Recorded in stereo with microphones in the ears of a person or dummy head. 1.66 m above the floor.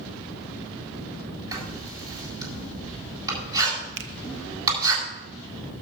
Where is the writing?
20° right (ahead or behind), 9 m.